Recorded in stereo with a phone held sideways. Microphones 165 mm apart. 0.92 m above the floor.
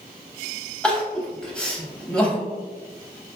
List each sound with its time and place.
0.8 s crying: 5° left (ahead or behind), 0.7 m